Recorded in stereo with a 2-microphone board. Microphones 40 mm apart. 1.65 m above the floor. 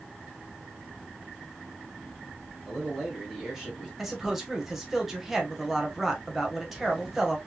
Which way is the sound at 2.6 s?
15° right (ahead or behind).